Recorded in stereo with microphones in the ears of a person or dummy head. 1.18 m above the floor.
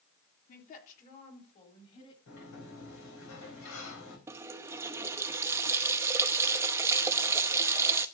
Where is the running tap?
15° right (ahead or behind), 0.8 m.